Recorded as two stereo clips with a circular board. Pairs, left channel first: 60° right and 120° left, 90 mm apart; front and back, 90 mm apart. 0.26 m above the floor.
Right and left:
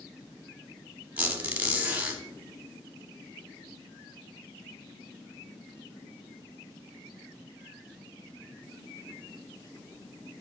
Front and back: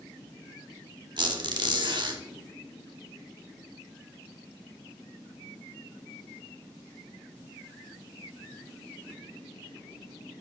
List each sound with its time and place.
1.2 s a squeak: 165° right, 1.1 m